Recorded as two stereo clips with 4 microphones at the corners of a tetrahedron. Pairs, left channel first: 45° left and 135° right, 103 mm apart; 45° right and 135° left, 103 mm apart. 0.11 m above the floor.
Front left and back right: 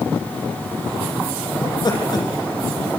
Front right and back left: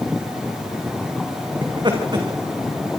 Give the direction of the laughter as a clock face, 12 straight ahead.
9 o'clock.